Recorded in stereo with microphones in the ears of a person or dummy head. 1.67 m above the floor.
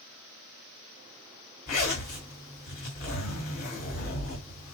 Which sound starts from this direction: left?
A zipper, at 1.7 s.